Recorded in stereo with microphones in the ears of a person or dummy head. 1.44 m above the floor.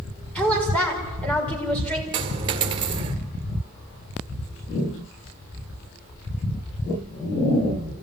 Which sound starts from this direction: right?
A dropped coin, at 2.1 s.